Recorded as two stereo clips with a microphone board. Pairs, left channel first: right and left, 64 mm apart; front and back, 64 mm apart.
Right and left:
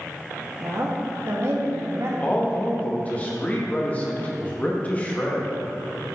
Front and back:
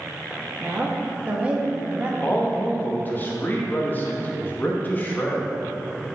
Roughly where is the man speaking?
Ahead right.